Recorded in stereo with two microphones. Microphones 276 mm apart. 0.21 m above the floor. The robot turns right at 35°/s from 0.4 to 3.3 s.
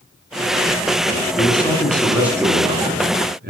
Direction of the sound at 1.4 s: 155° left.